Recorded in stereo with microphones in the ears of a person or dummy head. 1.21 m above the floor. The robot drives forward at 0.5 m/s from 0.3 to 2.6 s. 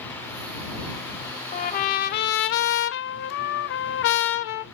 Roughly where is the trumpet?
Left.